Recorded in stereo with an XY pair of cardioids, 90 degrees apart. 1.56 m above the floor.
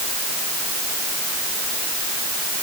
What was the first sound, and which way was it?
Only background noise.